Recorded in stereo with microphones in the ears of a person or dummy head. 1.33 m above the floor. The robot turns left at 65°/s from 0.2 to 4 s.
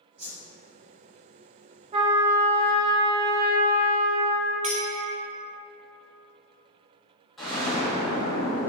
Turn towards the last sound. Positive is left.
turn(degrees=5)  # may be behind; listen again after turning